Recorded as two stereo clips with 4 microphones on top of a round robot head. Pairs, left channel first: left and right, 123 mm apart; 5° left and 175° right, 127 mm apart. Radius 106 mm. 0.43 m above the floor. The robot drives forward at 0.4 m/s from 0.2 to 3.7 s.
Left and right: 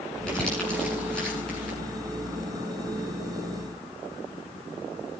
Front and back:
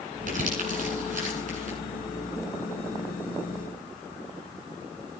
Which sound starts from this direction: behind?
Crumpling, at 0.3 s.